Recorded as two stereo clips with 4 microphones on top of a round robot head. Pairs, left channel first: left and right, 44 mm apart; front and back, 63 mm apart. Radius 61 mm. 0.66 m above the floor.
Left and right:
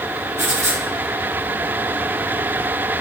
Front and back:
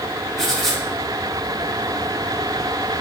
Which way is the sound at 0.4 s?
85° right.